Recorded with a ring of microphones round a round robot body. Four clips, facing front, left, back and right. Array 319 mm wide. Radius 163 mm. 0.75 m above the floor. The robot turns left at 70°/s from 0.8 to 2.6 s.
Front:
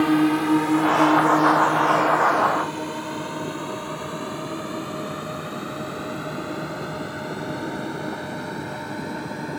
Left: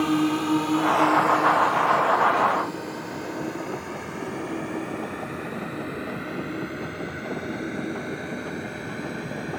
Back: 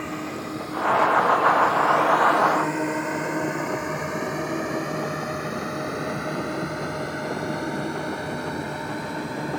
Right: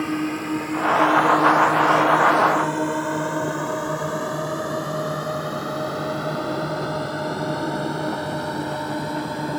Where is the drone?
10° left; by 9.6 s 90° right.